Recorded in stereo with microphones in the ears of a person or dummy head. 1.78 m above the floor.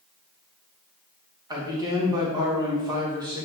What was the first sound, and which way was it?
A man speaking, 20° right (ahead or behind).